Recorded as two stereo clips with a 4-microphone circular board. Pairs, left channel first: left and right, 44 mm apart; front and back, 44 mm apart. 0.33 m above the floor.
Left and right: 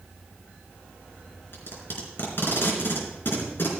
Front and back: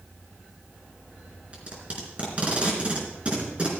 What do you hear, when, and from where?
1.5 s tape being pulled: 120° left, 3.5 m